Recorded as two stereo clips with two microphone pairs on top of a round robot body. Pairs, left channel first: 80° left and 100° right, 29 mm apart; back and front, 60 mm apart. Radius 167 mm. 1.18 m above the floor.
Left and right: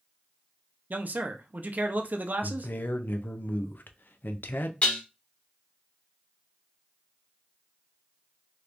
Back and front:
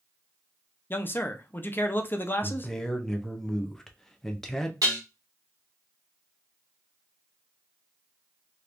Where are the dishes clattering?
25° left, 0.7 m.